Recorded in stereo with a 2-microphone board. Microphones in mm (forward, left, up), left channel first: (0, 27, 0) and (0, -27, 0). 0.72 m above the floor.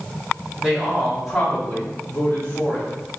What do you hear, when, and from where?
0.6 s a man speaking: 25° right (ahead or behind), 1.1 m; by 2.9 s 40° left (ahead or behind), 1.4 m